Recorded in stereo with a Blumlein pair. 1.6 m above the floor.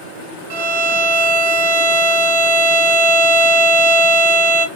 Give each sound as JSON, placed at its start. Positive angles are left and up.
{"t": 0.5, "sound": "a violin", "azimuth_deg": -55, "distance_m": 0.9}